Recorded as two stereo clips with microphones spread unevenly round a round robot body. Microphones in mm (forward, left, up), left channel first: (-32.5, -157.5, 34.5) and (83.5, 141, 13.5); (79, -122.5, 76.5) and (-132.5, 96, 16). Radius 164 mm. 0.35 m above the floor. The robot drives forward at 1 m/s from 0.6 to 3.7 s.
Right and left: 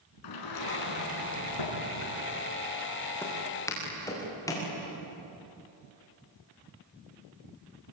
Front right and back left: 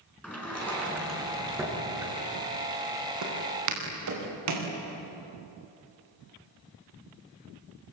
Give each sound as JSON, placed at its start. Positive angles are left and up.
{"t": 0.2, "sound": "a sliding door", "azimuth_deg": -135, "distance_m": 5.5}
{"t": 3.2, "sound": "footsteps", "azimuth_deg": 165, "distance_m": 6.5}